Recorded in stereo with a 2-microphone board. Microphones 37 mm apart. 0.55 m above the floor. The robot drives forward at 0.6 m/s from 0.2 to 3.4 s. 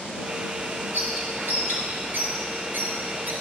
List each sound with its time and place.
0.9 s a bird: 80° right, 4 m; by 3.3 s 65° right (ahead or behind), 4.5 m